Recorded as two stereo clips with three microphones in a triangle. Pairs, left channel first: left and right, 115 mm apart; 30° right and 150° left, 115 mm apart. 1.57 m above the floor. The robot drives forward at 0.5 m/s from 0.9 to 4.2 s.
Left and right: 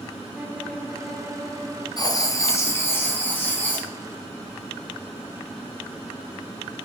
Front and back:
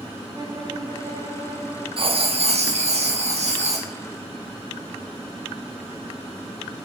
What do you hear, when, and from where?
0.3 s a violin: 150° right, 1.5 m; by 1.9 s 160° right, 1.8 m
2.0 s writing: 135° left, 0.6 m; by 3.9 s 165° left, 1.4 m